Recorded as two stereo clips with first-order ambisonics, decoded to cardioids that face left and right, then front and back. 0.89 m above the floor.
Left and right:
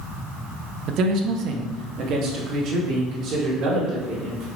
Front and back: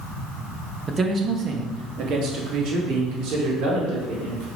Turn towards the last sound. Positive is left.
turn(degrees=-140)